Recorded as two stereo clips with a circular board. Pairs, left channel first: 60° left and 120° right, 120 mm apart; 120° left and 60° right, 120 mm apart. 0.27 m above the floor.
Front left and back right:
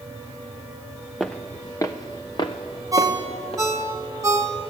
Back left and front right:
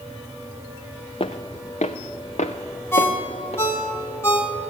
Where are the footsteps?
150° left, 0.8 m; by 3.6 s 95° left, 2 m.